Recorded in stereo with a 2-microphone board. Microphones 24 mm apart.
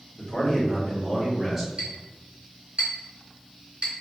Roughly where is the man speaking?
Left.